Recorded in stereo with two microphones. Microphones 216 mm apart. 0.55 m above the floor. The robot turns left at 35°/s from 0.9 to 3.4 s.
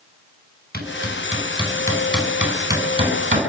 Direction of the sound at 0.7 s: 45° left (ahead or behind).